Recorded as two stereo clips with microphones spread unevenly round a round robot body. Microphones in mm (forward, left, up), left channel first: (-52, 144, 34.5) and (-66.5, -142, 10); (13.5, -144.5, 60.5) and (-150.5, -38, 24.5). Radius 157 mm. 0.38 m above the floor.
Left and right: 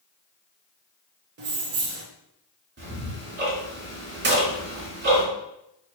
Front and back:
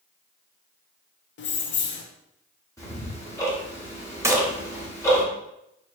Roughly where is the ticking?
Behind right.